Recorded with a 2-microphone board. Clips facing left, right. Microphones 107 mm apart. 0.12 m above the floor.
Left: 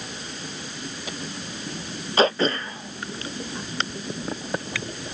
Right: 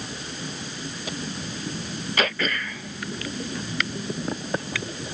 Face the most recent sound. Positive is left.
turn(degrees=30)  # may be behind; listen again after turning